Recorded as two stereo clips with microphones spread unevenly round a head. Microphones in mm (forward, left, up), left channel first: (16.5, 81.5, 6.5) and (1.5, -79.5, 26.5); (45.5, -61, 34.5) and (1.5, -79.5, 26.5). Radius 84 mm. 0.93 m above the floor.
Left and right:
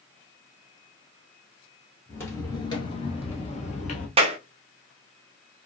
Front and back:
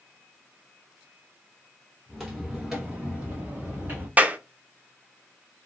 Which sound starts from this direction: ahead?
Footsteps, at 2.1 s.